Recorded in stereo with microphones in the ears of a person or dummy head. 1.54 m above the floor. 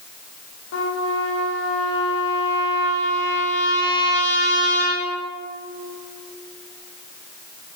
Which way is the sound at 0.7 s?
75° left (ahead or behind).